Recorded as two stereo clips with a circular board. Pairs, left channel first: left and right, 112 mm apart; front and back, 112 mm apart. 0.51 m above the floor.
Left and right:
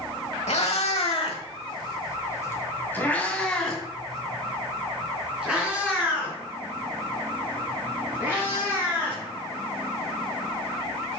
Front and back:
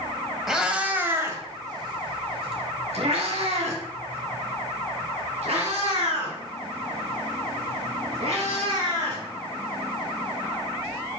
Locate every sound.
0.5 s a cat meowing: 95° left, 1.3 m; by 9.2 s 160° right, 5 m